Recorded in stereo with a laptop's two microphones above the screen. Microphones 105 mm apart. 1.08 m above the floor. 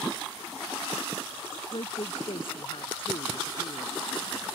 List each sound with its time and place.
1.7 s a woman speaking: 65° left (ahead or behind); by 3.9 s 55° left (ahead or behind)